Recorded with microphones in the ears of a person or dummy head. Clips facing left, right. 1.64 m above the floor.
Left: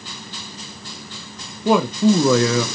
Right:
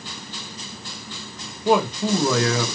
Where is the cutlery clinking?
No cutlery clinking in this recording.